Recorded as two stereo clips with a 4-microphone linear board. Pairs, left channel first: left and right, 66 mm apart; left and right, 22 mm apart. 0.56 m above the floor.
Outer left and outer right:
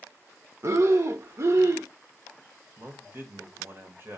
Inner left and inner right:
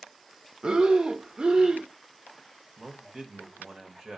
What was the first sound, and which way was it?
Breathing, 45° right (ahead or behind).